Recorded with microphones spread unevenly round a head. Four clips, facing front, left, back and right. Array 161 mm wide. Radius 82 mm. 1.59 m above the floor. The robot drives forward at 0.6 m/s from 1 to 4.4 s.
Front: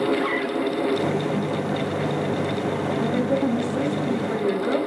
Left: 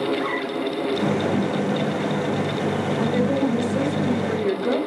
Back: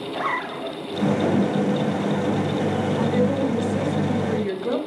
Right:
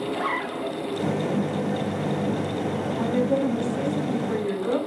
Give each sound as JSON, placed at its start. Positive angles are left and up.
{"t": 0.1, "sound": "a zipper", "azimuth_deg": -160, "distance_m": 1.0}
{"t": 3.0, "sound": "a woman speaking", "azimuth_deg": 135, "distance_m": 8.0}